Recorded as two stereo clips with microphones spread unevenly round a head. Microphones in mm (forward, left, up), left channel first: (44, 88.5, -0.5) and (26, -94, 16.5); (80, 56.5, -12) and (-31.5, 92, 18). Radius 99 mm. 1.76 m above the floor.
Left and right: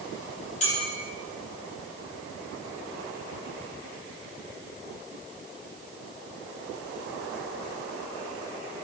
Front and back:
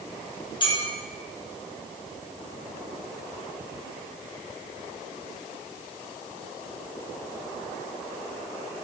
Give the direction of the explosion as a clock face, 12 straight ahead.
I don't hear an explosion.